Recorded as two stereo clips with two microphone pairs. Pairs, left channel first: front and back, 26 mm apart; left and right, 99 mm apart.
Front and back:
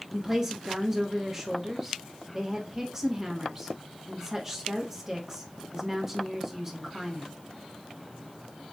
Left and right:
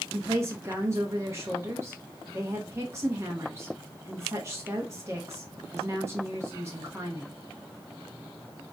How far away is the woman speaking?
About 0.9 m.